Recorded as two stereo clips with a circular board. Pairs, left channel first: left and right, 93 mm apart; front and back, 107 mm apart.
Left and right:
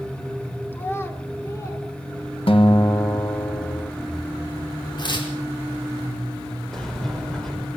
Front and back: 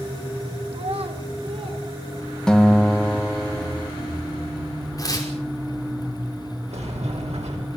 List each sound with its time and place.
0.7 s a child speaking: 160° left, 2.5 m; by 1.9 s 145° left, 4 m
2.5 s a guitar: 80° left, 1.9 m
5.0 s tearing paper: 55° left, 5 m
6.7 s a sliding door: 175° left, 5 m